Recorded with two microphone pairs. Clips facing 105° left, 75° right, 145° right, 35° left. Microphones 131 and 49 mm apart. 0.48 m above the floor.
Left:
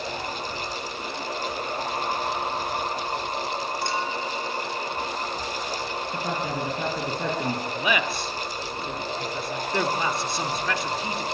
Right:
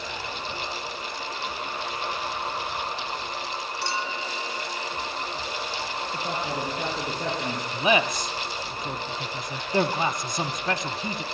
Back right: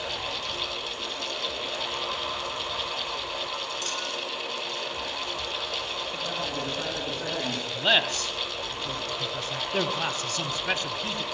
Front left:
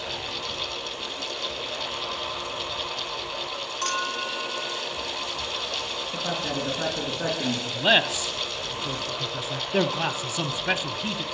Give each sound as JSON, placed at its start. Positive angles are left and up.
{"t": 3.8, "sound": "a clink", "azimuth_deg": 60, "distance_m": 3.0}
{"t": 6.1, "sound": "a man speaking", "azimuth_deg": 95, "distance_m": 5.5}
{"t": 7.7, "sound": "a man speaking", "azimuth_deg": -20, "distance_m": 0.9}